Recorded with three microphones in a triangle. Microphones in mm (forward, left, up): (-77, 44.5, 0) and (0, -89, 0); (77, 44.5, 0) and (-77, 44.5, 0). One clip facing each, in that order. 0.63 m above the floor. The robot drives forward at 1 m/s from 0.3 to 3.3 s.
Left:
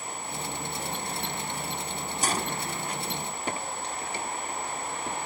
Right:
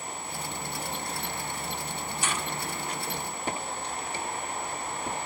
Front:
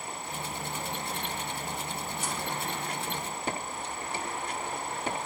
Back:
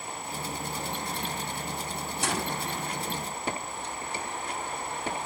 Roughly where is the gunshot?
Behind.